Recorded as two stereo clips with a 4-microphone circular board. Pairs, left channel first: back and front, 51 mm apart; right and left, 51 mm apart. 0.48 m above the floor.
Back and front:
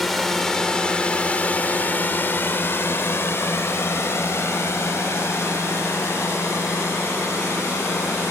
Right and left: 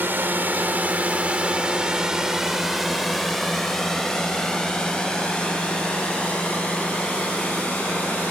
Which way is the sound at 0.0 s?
90° left.